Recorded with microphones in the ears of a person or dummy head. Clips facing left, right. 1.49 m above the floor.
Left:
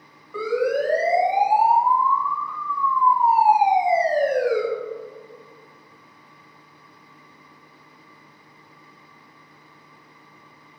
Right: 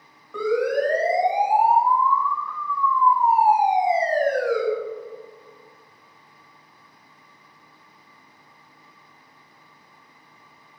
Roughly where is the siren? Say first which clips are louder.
Even; centre.